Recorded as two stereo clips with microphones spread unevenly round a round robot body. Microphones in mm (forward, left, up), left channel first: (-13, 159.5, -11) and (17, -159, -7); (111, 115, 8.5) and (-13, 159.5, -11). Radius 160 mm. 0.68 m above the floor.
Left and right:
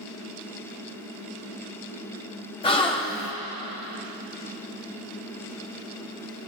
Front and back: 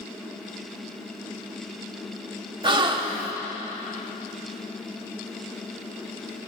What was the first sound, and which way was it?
A gasp, 165° left.